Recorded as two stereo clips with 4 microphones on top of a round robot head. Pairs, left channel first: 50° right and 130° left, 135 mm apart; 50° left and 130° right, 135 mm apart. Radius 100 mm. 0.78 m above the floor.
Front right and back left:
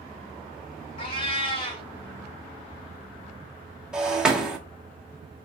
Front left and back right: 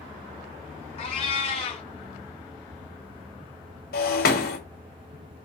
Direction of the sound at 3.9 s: 45° left.